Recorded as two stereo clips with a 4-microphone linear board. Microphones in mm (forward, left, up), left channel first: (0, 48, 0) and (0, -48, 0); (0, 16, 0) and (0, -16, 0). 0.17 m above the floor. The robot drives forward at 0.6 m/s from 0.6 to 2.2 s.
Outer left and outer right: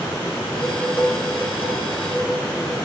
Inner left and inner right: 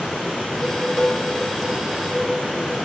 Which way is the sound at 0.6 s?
15° left (ahead or behind).